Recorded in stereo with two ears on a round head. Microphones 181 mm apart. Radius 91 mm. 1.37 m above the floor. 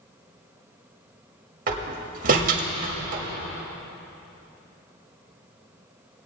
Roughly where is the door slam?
Right.